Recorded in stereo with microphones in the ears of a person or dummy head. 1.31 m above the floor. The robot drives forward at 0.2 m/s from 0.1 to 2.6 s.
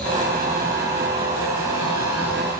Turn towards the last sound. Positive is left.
No sound to turn to.